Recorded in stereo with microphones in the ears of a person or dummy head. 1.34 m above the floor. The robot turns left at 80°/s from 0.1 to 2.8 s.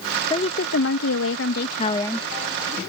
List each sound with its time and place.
0.3 s a woman speaking: 160° left; by 2.3 s 5° left